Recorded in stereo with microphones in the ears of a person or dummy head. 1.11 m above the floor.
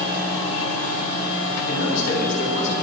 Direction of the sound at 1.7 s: 45° left (ahead or behind).